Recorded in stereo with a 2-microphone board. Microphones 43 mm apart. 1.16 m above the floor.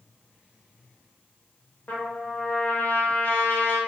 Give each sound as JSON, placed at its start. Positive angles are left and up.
{"t": 1.9, "sound": "a trumpet", "side_deg": 40, "distance_m": 0.9}